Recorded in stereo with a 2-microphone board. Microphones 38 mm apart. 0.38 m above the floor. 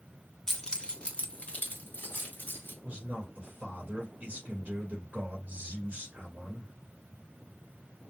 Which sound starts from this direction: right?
A man speaking, at 2.8 s.